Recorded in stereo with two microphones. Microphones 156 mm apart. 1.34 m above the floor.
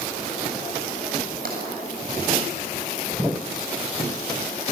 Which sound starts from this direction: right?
Tapping, at 1.4 s.